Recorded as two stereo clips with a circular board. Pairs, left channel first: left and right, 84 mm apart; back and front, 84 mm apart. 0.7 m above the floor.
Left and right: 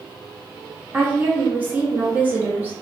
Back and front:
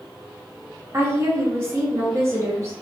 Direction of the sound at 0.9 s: 35° right.